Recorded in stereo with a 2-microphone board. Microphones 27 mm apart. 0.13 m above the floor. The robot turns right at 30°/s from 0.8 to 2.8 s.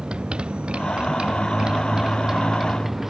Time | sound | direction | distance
0.0 | a motorcycle | 40° right (ahead or behind) | ?